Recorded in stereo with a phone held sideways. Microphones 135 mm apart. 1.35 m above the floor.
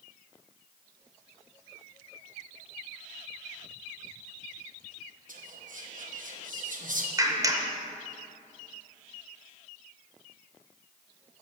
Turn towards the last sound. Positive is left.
turn(degrees=-25)  # may be behind; listen again after turning